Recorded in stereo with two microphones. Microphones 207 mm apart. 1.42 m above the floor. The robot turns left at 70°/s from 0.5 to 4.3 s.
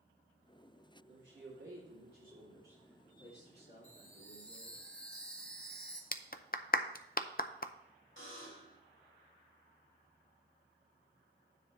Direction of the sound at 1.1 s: 55° right.